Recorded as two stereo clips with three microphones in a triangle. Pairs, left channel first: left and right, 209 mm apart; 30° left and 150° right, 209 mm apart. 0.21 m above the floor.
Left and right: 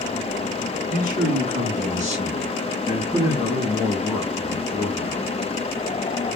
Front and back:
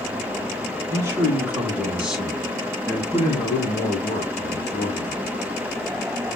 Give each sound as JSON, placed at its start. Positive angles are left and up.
{"t": 0.9, "sound": "a man speaking", "azimuth_deg": -80, "distance_m": 2.0}